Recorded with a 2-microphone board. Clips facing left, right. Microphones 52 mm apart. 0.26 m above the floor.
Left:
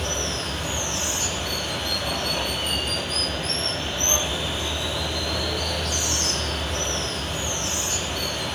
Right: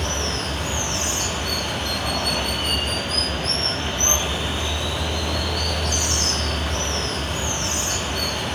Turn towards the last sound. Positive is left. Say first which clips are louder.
# right 2 dB
turn(degrees=-65)  # may be behind; listen again after turning